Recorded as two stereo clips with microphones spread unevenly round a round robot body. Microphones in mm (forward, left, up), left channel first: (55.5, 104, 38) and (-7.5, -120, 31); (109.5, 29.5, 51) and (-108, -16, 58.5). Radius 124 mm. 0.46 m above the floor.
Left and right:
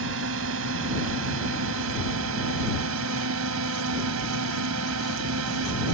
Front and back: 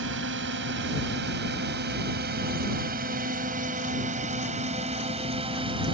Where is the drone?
135° right; by 6.0 s 100° right.